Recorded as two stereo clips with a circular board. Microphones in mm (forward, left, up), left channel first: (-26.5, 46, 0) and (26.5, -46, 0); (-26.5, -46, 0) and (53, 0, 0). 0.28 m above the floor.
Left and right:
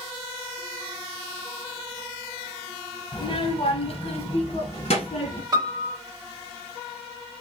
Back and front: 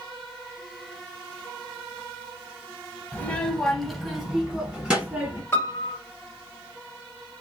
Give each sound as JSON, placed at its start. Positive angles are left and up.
{"t": 3.1, "sound": "a child speaking", "azimuth_deg": 145, "distance_m": 0.7}
{"t": 5.5, "sound": "a piano", "azimuth_deg": -95, "distance_m": 0.9}